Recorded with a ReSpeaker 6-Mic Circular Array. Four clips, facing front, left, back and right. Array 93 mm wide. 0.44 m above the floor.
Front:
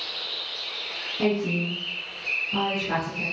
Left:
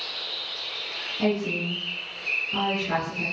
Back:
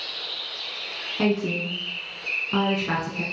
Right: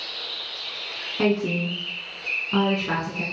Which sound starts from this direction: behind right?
A woman speaking, at 1.2 s.